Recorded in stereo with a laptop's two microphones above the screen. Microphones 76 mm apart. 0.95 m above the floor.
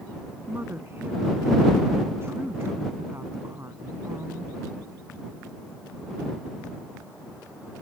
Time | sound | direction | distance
0.5 | a woman speaking | 30° right (ahead or behind) | ?